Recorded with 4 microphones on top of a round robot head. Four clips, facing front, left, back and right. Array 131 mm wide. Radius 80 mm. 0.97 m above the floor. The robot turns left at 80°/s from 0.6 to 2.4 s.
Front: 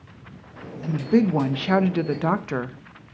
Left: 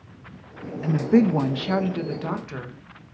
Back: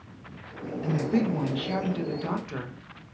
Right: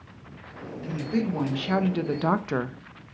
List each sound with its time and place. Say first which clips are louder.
0.8 s a woman speaking: left 9 dB, front 6 dB; 80° left, 1.1 m; by 2.8 s 45° right, 1.1 m